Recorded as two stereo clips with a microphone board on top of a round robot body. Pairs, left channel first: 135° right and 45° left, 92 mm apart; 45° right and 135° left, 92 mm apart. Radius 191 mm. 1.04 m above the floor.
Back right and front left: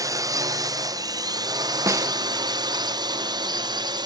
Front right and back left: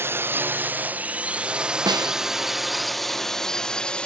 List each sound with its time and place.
0.0 s a drone: 80° left; by 4.1 s 30° left
1.9 s a snare drum: 100° left